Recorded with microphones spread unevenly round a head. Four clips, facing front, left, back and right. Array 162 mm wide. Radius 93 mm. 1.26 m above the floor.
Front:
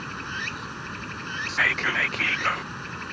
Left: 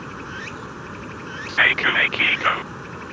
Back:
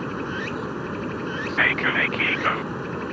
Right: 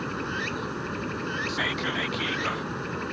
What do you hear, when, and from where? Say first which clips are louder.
0.0 s running water: right 3 dB, back 6 dB; 165° right
1.5 s whispering: left 13 dB, back 3 dB; 80° left